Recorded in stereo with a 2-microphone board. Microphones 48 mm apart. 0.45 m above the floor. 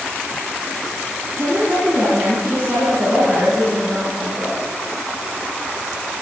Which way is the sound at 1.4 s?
50° right (ahead or behind).